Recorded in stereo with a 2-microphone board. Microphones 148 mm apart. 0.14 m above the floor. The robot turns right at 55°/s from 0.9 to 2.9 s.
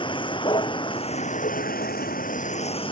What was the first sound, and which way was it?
A vehicle, 35° left.